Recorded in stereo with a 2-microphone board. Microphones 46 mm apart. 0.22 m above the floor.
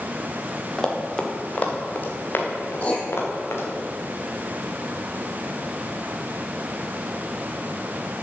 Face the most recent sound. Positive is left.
turn(degrees=30)  # may be behind; listen again after turning